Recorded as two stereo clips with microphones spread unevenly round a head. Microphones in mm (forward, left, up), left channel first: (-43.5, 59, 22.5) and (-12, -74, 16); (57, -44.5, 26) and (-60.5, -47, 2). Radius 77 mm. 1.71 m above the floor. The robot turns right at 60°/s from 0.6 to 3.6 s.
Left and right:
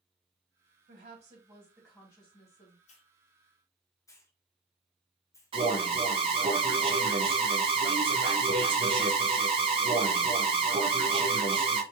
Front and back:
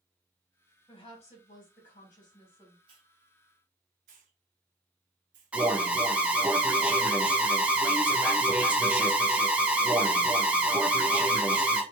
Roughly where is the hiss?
Behind left.